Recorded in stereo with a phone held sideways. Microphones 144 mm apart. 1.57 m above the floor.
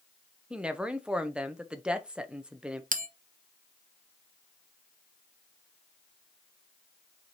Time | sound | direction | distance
0.5 | a woman speaking | 5° right (ahead or behind) | 1.1 m
2.9 | a bell | 65° right (ahead or behind) | 1.0 m